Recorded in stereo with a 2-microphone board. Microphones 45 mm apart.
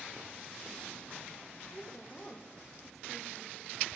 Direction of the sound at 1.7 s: 10° left (ahead or behind).